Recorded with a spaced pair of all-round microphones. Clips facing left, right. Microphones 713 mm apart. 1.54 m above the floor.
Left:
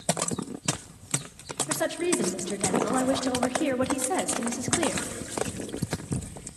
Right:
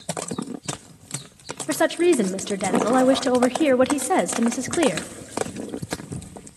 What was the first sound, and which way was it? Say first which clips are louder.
A woman speaking: right 9 dB; 85° right.